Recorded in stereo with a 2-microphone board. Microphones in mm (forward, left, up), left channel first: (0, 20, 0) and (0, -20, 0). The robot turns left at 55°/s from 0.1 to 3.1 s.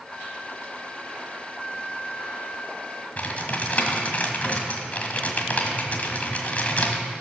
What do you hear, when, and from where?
3.2 s typing on a keyboard: 40° left (ahead or behind), 1.3 m